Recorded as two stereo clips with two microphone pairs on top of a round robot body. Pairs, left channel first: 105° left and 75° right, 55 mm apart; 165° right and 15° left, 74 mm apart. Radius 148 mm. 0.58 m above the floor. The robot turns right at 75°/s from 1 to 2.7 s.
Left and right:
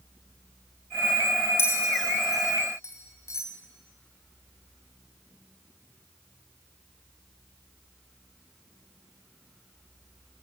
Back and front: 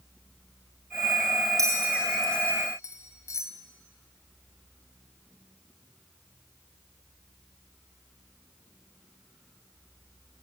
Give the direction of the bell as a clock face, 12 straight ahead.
10 o'clock.